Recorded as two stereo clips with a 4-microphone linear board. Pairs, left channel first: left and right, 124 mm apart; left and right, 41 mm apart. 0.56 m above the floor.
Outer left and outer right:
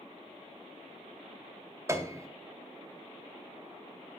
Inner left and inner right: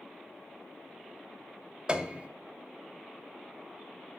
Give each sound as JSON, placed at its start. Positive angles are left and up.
{"t": 1.9, "sound": "a piano", "side_deg": -25, "distance_m": 0.8}